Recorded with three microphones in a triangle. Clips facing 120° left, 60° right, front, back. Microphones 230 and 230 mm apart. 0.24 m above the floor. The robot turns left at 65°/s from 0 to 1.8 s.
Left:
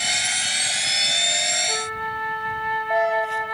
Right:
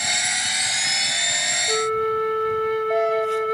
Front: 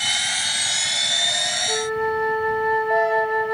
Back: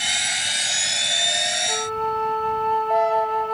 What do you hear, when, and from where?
1.7 s a flute: 65° right; by 3.5 s 70° right